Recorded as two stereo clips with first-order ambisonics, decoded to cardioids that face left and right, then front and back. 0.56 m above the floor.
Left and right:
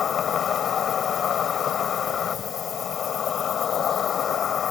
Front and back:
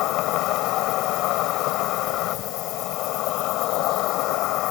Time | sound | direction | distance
0.0 | an insect | 30° left | ?